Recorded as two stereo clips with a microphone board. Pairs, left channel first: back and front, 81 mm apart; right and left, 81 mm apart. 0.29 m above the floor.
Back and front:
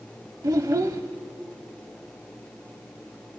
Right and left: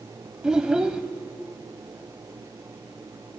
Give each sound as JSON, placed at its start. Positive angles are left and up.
{"t": 0.4, "sound": "a child speaking", "azimuth_deg": 10, "distance_m": 0.8}